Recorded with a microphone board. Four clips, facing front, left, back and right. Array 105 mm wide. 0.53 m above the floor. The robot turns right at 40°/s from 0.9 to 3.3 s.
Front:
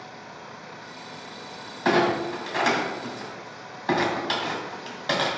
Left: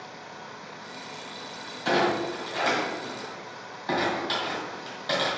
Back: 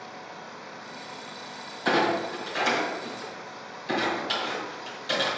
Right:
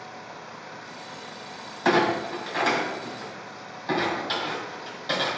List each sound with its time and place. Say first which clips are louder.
1.9 s a clunk: right 2 dB, front 3 dB; 55° right, 2.5 m; by 5.3 s straight ahead, 2.5 m